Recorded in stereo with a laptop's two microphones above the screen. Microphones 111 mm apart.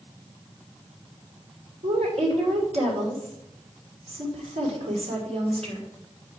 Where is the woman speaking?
75° right (ahead or behind), 2.5 m.